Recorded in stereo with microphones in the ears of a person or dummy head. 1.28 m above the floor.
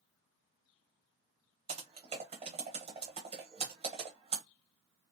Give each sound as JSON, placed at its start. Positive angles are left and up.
{"t": 1.7, "sound": "typing on a keyboard", "side_deg": -25, "distance_m": 0.7}